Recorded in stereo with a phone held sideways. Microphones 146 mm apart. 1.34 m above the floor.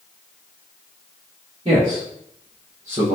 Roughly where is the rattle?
I don't hear a rattle.